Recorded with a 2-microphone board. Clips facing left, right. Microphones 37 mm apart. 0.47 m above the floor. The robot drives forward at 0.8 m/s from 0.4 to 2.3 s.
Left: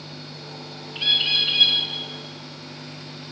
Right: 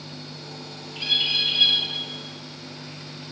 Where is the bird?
45° left (ahead or behind), 2 m; by 1.8 s 60° left (ahead or behind), 1.7 m.